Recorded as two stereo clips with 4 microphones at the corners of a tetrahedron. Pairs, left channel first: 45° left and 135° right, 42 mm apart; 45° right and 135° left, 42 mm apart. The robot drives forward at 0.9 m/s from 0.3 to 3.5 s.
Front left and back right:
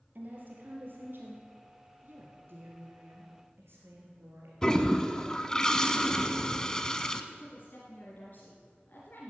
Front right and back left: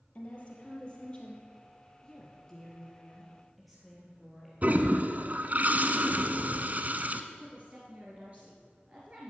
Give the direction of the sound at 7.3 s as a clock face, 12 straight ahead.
9 o'clock.